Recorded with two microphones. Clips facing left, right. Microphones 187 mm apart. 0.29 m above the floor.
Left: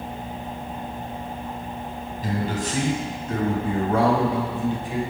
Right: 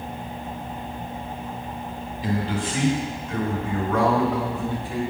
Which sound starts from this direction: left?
A man speaking, at 2.2 s.